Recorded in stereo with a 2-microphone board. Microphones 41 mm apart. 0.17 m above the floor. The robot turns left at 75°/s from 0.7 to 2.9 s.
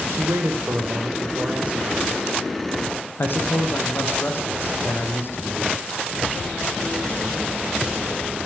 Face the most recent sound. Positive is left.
turn(degrees=115)